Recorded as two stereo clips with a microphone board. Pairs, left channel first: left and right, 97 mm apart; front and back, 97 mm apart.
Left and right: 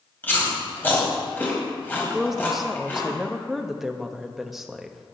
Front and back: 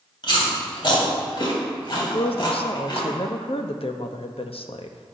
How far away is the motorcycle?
No motorcycle in this recording.